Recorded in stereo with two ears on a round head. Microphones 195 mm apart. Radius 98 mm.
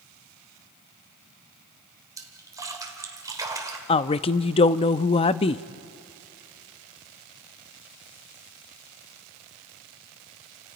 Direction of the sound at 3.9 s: 25° left (ahead or behind).